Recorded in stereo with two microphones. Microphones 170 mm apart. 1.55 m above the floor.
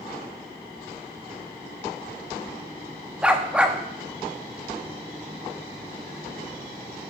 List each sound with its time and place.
3.2 s a dog barking: 5° right (ahead or behind), 1.0 m